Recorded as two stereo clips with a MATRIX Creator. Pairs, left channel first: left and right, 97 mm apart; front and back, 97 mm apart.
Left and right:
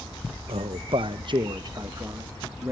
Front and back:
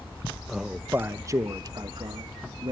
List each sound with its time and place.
0.5 s a man speaking: 90° right, 0.8 m; by 2.7 s 150° right, 1.7 m